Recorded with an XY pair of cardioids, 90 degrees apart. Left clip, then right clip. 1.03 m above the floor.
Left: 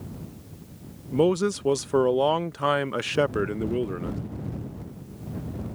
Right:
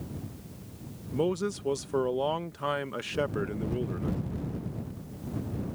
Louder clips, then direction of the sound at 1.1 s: Left 7 dB; 55° left.